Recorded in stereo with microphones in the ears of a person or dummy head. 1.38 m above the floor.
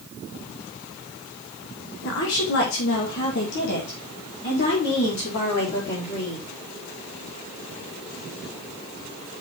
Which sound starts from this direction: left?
A woman speaking, at 2.0 s.